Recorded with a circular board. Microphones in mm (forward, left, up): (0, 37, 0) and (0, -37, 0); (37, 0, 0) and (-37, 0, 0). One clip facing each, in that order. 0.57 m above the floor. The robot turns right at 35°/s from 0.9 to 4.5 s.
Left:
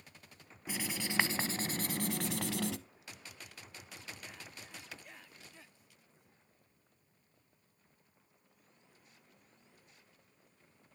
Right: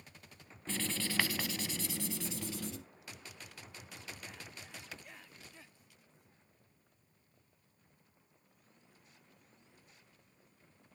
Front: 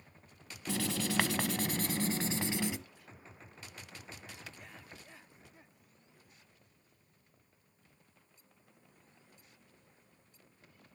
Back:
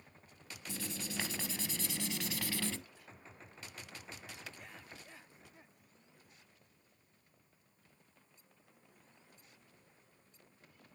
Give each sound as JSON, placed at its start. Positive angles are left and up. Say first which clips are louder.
{"t": 0.7, "sound": "writing", "louder": "right 1 dB, front 9 dB", "azimuth_deg": 10, "distance_m": 1.0}